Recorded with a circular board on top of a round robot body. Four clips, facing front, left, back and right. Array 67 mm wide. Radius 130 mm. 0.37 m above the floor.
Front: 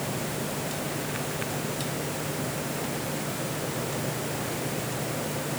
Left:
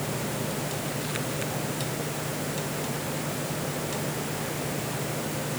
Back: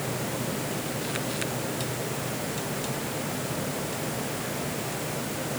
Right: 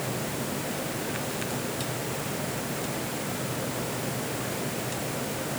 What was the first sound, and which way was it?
Only background noise.